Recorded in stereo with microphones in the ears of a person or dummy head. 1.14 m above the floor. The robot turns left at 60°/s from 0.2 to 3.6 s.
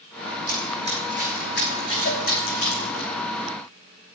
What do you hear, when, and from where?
0.5 s running footsteps: 45° right (ahead or behind), 3.5 m; by 3.0 s 80° left, 5.5 m
2.0 s a cowbell: 40° left (ahead or behind), 1.5 m; by 2.3 s 50° left (ahead or behind), 1.5 m